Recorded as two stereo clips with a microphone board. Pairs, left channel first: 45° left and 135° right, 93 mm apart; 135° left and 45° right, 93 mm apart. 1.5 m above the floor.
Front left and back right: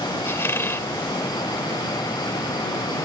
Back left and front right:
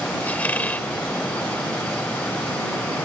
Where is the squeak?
80° left.